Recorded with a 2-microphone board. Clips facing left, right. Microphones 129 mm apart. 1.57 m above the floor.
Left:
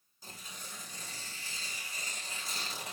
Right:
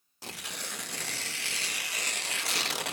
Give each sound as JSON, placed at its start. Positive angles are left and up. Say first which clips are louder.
{"t": 0.2, "sound": "tearing paper", "louder": "right 8 dB", "side_deg": -80, "distance_m": 0.6}